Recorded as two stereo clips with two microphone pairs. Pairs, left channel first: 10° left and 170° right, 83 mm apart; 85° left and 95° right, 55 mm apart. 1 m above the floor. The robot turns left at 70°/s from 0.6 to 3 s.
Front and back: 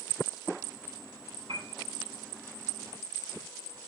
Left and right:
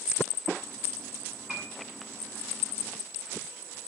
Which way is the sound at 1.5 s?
175° right.